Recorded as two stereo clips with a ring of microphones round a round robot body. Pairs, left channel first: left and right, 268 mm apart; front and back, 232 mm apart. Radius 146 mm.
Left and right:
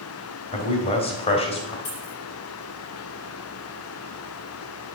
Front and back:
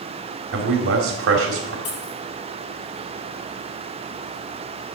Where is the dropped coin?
20° left, 4.5 m.